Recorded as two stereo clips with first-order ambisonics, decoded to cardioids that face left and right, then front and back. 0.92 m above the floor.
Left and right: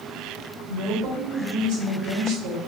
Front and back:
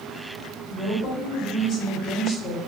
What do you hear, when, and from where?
0.7 s a woman speaking: 65° right, 1.5 m